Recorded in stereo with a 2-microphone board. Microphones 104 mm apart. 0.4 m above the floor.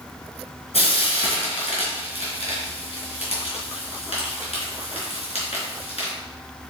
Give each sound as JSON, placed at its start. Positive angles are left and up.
{"t": 0.7, "sound": "frying", "side_deg": 75, "distance_m": 4.0}